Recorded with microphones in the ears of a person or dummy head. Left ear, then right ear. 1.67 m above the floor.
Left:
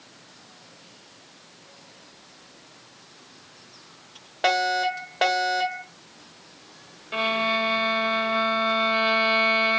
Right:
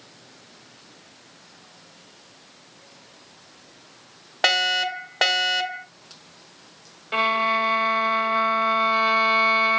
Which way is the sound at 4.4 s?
45° right (ahead or behind).